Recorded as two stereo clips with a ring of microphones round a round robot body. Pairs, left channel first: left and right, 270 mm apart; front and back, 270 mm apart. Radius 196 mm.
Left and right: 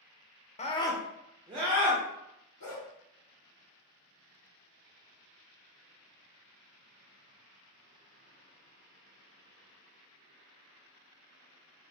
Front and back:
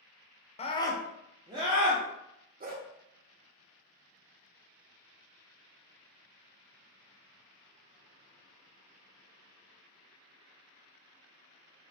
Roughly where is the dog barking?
Behind left.